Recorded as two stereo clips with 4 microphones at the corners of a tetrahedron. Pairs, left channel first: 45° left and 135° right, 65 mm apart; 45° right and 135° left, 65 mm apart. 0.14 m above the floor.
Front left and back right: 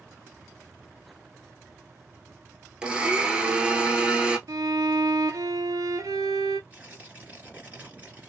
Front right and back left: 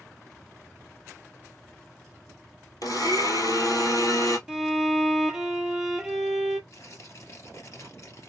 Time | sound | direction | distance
2.8 | a blender | 60° right | 1.0 m
4.5 | a violin | 145° right | 0.7 m
6.7 | tearing paper | 70° right | 2 m